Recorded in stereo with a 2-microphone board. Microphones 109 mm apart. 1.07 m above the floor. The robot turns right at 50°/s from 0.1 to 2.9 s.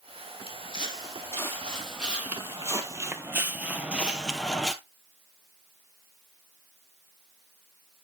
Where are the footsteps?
60° left (ahead or behind), 2 m; by 4.7 s 5° left (ahead or behind), 1.1 m.